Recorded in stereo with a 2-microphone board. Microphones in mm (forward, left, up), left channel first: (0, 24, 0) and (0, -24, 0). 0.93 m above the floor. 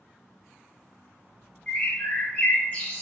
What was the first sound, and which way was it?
A bird, 25° left (ahead or behind).